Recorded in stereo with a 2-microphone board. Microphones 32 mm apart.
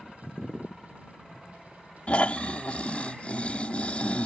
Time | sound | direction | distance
2.1 | snoring | 45° left (ahead or behind) | ?